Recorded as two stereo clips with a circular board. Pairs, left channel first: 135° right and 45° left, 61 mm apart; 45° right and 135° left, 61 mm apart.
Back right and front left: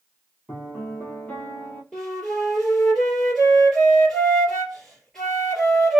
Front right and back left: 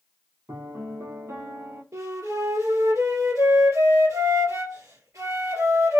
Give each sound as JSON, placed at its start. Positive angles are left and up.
{"t": 0.5, "sound": "a piano", "azimuth_deg": 165, "distance_m": 1.4}
{"t": 1.9, "sound": "a flute", "azimuth_deg": 140, "distance_m": 2.5}